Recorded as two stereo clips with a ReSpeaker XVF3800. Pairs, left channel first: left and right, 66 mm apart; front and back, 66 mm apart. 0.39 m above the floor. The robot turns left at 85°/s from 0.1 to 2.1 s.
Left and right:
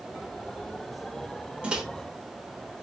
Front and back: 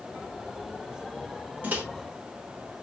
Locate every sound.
1.6 s a microwave: 140° right, 0.9 m; by 1.8 s 160° right, 0.9 m